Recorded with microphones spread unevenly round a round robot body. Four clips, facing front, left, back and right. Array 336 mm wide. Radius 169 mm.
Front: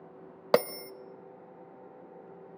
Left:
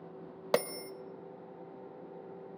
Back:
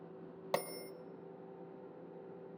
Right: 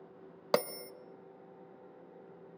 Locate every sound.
0.5 s a bell: 5° right, 0.6 m